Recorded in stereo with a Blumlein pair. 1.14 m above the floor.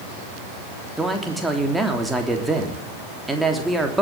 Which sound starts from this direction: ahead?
A man speaking, at 1.0 s.